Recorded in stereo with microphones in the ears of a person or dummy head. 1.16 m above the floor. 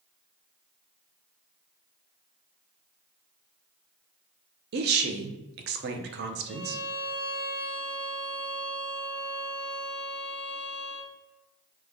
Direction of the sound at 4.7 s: 60° right (ahead or behind).